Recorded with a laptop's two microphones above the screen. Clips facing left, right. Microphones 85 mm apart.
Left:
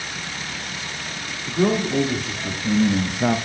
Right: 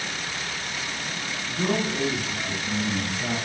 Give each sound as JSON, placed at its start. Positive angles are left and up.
{"t": 1.4, "sound": "a man speaking", "side_deg": 85, "distance_m": 2.5}